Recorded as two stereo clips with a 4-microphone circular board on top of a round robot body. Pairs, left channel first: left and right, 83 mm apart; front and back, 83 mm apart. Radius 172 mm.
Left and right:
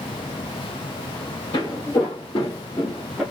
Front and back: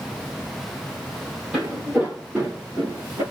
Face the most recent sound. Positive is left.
turn(degrees=-170)